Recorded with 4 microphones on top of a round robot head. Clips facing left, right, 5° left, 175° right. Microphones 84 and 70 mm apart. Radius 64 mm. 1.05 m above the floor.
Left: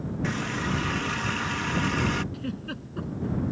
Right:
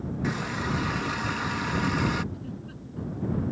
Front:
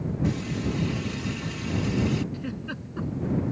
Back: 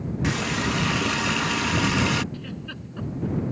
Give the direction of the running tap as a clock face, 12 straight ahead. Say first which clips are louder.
Even, back 5 dB; 6 o'clock.